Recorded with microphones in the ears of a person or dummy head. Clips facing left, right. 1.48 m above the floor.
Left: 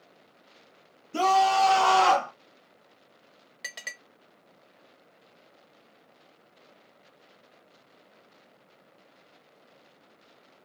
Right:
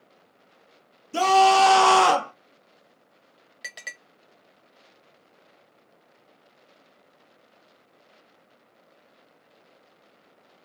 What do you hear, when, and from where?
1.1 s a scream: 65° right (ahead or behind), 1.2 m; by 2.3 s 35° right (ahead or behind), 0.7 m
3.6 s a clink: centre (ahead or behind), 0.7 m